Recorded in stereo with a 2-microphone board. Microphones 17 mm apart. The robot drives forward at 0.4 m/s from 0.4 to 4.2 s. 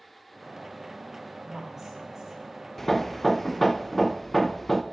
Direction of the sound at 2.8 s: 20° left (ahead or behind).